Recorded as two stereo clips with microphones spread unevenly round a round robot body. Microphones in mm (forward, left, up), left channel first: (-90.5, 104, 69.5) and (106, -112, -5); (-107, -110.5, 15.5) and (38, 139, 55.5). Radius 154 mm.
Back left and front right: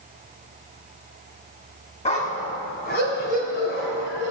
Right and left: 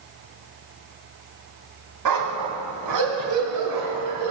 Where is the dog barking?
70° left, 1.9 m; by 4.3 s 85° left, 3.5 m.